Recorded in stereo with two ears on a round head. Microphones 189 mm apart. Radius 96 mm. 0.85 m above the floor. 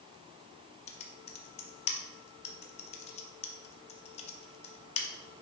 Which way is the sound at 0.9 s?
30° left (ahead or behind).